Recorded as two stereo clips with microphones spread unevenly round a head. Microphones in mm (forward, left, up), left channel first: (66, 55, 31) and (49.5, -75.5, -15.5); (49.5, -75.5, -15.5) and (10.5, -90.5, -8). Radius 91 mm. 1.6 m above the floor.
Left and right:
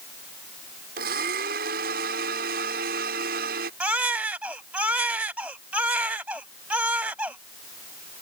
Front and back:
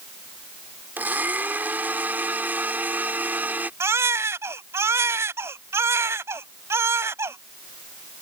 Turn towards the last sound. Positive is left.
turn(degrees=180)